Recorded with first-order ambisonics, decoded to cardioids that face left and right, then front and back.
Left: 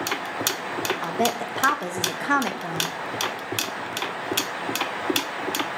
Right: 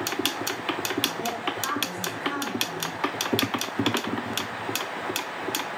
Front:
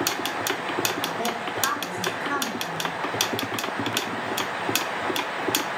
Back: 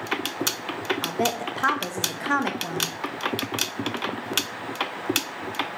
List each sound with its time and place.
1.0 s a woman speaking: 110° left, 1.0 m